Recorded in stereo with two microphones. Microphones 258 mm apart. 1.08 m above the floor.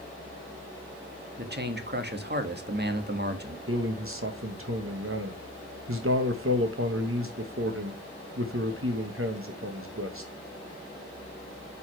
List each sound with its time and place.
1.4 s a man speaking: 40° right (ahead or behind), 1.7 m
3.7 s a man speaking: 55° right (ahead or behind), 1.4 m